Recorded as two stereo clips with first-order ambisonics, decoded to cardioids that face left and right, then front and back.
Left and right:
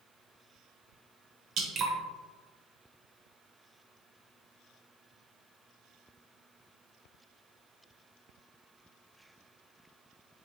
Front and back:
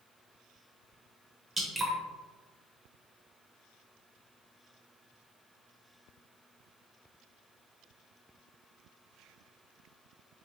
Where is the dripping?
100° right, 0.7 m.